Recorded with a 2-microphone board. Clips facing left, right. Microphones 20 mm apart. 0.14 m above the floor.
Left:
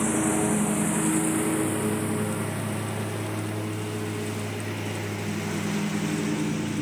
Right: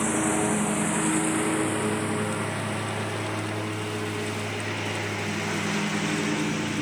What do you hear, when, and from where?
0.0 s a lawn mower: 10° right (ahead or behind); by 6.8 s 25° right (ahead or behind)